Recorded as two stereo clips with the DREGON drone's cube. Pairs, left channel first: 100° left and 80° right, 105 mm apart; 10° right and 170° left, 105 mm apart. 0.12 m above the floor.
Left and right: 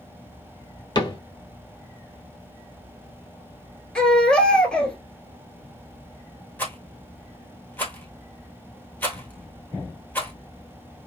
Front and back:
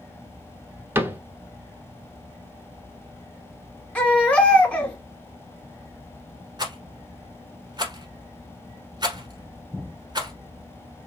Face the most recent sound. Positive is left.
turn(degrees=160)